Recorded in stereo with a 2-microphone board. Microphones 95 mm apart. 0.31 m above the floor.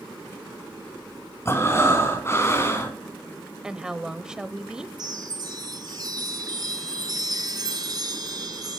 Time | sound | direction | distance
1.4 | breathing | 30° left (ahead or behind) | 3.5 m
3.6 | a woman speaking | 10° right (ahead or behind) | 1.0 m
5.0 | a chime | 50° right (ahead or behind) | 2.5 m